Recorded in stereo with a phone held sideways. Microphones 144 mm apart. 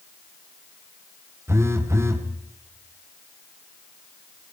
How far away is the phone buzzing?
About 1.4 m.